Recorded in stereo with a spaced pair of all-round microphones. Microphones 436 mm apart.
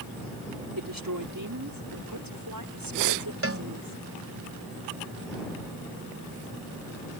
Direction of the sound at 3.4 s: 35° right (ahead or behind).